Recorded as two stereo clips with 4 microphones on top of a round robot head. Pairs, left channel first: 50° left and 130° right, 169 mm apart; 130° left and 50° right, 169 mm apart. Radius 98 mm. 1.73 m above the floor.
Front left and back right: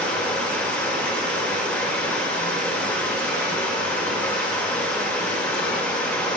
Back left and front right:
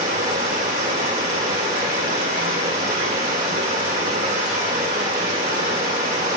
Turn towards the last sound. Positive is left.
turn(degrees=-30)